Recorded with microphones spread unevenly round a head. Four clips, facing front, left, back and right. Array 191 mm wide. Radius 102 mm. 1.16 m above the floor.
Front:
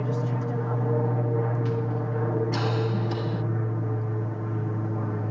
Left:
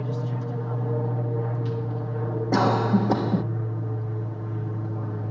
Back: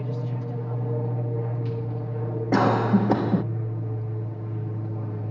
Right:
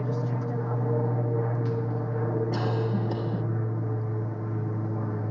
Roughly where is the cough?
Behind left.